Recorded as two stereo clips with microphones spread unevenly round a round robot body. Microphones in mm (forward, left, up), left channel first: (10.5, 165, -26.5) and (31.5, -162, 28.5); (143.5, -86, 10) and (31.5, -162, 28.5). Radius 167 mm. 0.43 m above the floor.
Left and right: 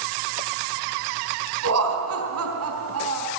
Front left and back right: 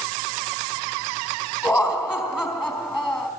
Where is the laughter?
40° right, 4 m.